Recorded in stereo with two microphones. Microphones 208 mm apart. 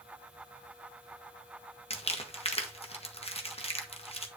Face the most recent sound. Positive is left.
turn(degrees=30)  # may be behind; listen again after turning